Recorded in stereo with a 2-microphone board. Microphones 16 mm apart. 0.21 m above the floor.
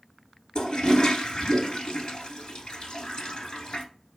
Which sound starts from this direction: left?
A toilet flushing, at 0.6 s.